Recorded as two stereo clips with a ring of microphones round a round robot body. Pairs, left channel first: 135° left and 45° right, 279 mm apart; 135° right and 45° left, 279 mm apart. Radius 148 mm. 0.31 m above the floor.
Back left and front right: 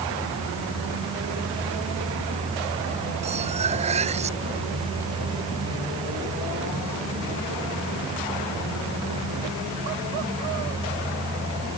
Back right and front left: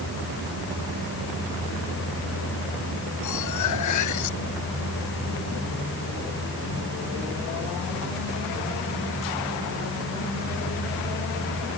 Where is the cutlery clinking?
110° right.